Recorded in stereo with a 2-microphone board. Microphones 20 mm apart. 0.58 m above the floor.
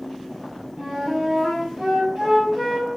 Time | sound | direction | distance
0.8 | a flute | 40° right (ahead or behind) | 4 m